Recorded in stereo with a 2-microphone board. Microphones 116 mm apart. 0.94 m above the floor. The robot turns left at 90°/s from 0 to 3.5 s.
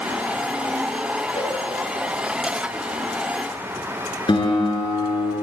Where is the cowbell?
85° left, 6.5 m; by 1.6 s 65° left (ahead or behind), 6.5 m.